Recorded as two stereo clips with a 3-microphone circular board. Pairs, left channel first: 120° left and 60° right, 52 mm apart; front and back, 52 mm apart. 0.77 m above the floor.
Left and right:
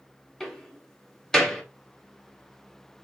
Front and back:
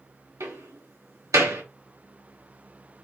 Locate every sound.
0.4 s a door slam: 160° right, 1.1 m